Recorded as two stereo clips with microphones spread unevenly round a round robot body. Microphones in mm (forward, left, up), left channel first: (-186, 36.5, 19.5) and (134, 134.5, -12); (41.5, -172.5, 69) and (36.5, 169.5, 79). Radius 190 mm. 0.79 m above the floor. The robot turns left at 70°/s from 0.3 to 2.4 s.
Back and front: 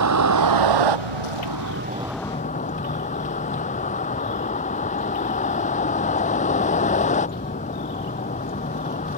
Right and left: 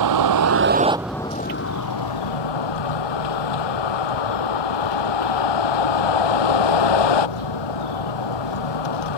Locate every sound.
0.0 s a vehicle: 55° left; by 9.2 s 90° right